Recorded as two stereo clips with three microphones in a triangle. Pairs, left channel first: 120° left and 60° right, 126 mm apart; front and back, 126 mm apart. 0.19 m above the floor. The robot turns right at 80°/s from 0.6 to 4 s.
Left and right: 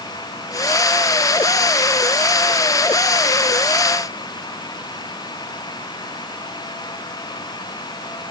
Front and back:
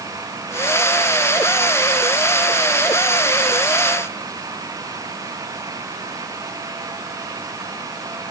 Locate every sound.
Only background noise.